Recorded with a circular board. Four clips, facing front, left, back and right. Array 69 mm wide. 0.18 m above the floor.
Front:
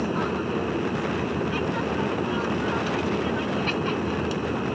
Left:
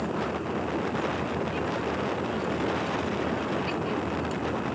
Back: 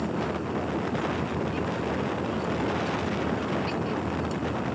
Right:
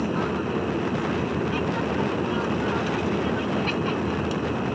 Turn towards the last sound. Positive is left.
turn(degrees=-40)